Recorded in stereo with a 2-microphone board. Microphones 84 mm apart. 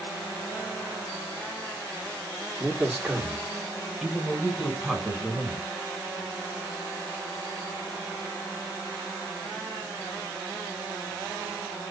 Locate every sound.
2.6 s a man speaking: 10° right (ahead or behind), 1.6 m; by 5.7 s centre (ahead or behind), 4 m